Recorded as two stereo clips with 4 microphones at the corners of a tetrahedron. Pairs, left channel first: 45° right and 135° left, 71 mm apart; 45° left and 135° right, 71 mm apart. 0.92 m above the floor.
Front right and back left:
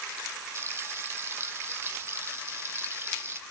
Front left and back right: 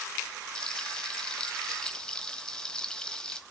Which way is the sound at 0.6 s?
115° left.